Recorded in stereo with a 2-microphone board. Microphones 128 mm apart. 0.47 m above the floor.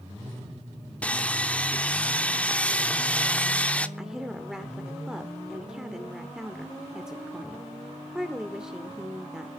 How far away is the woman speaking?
About 1.3 m.